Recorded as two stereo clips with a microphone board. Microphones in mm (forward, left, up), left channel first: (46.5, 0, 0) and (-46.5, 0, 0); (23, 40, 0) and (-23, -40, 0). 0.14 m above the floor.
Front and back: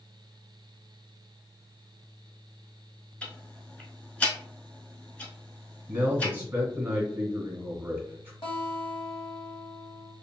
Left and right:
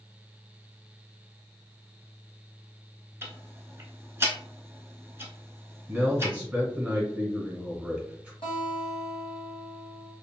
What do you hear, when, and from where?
3.2 s ticking: 70° right, 0.8 m
5.9 s a man speaking: 170° right, 1.4 m
8.4 s a guitar: 35° left, 1.9 m